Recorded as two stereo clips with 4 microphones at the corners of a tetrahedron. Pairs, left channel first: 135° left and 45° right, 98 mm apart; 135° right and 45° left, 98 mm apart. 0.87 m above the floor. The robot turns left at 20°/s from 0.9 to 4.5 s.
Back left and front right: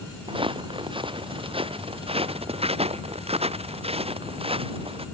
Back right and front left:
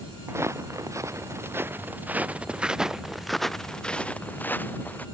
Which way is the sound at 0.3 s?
20° right.